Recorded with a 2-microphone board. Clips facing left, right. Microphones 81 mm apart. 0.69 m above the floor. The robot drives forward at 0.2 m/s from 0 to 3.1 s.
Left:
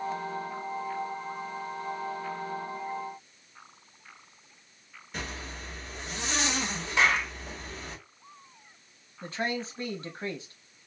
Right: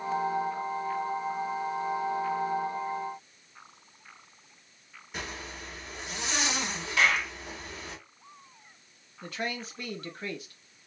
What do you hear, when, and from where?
5.1 s a zipper: 5° right (ahead or behind), 1.5 m
7.0 s a clap: 30° left (ahead or behind), 1.4 m
9.2 s a man speaking: 30° left (ahead or behind), 0.8 m